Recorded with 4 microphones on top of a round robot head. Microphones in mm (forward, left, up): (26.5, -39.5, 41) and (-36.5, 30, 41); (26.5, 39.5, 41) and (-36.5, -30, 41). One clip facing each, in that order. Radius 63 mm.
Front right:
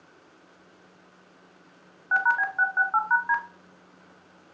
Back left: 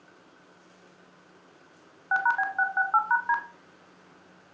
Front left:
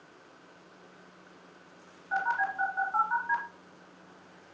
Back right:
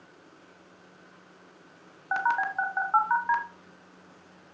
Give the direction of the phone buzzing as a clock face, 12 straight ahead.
5 o'clock.